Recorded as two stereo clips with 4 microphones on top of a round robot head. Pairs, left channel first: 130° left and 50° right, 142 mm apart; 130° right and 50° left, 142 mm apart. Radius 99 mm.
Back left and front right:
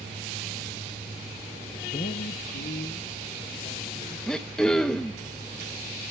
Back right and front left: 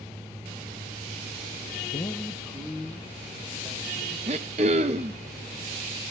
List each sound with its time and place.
1.9 s a man speaking: 175° right, 0.5 m; by 4.2 s 130° left, 3.5 m
4.3 s throat clearing: 45° left, 0.6 m